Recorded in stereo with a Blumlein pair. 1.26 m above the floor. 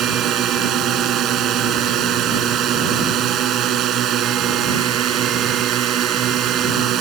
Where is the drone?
30° right.